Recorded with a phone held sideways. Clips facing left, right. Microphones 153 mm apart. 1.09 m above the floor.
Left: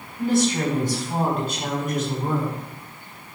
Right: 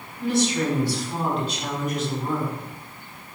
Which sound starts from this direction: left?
A woman speaking, at 0.2 s.